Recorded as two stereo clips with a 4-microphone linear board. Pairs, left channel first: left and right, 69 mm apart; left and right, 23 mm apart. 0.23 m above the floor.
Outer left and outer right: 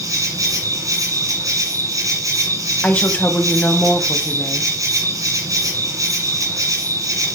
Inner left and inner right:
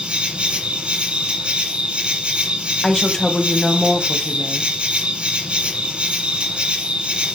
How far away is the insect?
About 5.5 m.